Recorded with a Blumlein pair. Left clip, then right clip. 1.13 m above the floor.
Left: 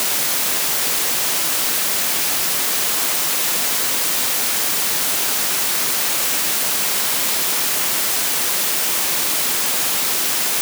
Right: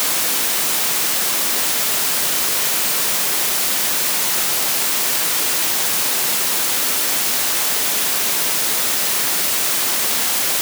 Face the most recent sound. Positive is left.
No sound to turn to.